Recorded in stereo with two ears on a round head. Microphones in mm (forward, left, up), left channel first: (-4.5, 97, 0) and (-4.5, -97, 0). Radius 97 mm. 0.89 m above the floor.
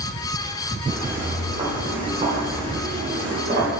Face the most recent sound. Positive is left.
turn(degrees=-40)  # may be behind; listen again after turning